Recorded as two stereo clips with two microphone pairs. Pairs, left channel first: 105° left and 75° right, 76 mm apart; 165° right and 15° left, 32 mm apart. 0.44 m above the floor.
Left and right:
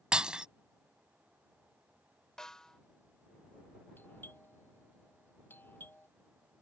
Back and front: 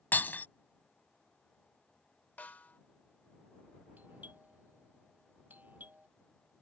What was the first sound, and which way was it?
Breaking glass, 155° right.